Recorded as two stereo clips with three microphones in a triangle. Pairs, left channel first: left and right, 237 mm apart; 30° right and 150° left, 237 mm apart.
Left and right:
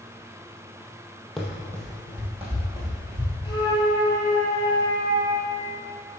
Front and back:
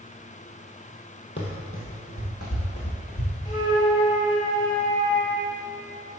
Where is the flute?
20° left, 1.8 m.